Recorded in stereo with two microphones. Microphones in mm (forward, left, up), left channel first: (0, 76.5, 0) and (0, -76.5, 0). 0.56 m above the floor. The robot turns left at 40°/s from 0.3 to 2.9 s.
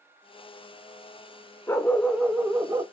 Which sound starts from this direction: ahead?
A dog barking, at 1.7 s.